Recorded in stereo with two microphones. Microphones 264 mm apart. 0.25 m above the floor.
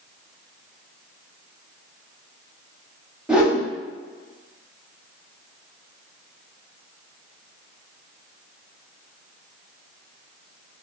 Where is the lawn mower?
I don't hear a lawn mower.